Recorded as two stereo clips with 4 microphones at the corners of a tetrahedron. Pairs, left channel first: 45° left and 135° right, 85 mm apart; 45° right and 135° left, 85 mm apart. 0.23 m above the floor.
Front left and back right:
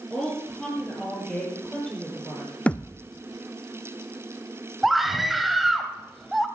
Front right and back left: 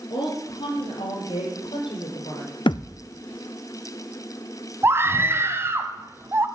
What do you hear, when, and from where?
0.1 s a woman speaking: 40° right, 5.5 m; by 2.5 s 30° right, 6 m
2.7 s a thud: 30° right, 0.6 m
4.8 s a scream: 135° left, 1.2 m